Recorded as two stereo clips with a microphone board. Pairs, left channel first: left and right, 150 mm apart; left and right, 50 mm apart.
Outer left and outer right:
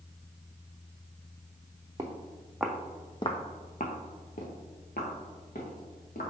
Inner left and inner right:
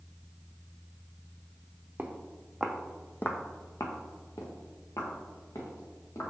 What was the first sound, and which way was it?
Footsteps, 30° right (ahead or behind).